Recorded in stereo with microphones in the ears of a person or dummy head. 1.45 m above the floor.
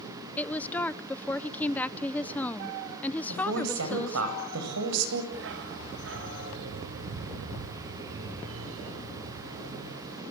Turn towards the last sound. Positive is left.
turn(degrees=-65)  # may be behind; listen again after turning